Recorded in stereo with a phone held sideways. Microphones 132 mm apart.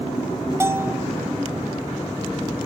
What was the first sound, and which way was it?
A bell, 20° right (ahead or behind).